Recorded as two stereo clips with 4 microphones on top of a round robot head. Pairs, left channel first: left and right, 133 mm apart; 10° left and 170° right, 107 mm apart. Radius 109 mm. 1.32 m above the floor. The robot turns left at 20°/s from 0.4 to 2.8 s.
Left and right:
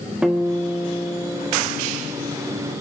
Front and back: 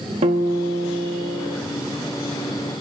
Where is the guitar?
175° right, 1.0 m; by 1.6 s 160° left, 1.0 m.